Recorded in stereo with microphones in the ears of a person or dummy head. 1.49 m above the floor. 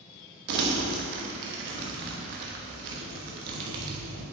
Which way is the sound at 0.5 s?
55° right (ahead or behind).